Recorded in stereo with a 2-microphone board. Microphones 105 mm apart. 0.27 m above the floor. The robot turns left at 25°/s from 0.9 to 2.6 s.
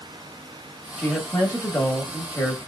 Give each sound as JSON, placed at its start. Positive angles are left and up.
{"t": 1.0, "sound": "a woman speaking", "side_deg": 20, "distance_m": 1.0}